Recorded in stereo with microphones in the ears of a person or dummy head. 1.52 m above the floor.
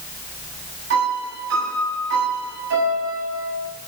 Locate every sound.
0.9 s a piano: 65° right (ahead or behind), 8.5 m